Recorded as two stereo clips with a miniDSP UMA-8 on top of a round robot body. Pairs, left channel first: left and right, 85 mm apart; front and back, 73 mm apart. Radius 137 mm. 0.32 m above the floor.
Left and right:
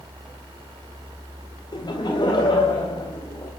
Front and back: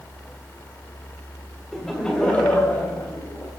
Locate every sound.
1.7 s laughter: 90° left, 2 m; by 3.5 s 60° left, 3.5 m